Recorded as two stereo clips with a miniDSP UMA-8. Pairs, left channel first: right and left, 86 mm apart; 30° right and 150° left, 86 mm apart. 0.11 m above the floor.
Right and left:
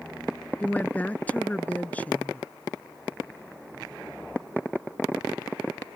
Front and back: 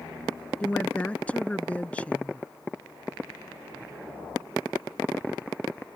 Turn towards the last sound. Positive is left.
turn(degrees=-65)